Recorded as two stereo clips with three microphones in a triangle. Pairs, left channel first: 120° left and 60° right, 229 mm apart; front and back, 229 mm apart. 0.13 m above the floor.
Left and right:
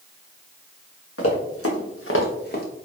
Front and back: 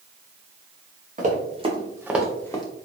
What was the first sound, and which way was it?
Running footsteps, 125° left.